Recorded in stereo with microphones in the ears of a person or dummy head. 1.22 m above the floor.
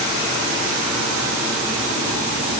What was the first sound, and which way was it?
Only background noise.